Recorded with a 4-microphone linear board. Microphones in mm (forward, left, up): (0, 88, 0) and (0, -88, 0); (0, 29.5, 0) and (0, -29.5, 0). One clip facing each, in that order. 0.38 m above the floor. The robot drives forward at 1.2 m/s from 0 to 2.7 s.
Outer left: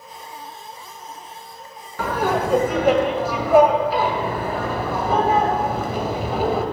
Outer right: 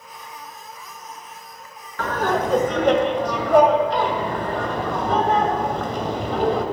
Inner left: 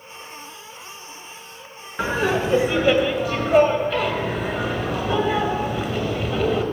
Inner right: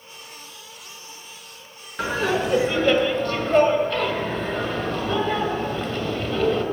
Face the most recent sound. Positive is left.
turn(degrees=5)  # may be behind; listen again after turning